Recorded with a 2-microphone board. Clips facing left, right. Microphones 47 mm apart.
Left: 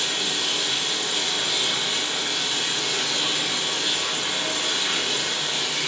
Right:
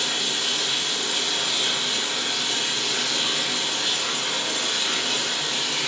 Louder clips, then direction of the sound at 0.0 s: Even; 10° left (ahead or behind).